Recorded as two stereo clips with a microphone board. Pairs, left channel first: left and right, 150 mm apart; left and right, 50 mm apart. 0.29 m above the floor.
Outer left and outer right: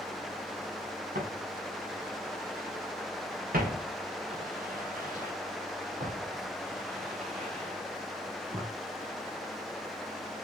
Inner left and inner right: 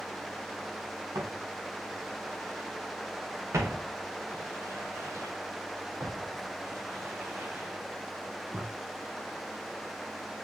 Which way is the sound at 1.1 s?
80° right.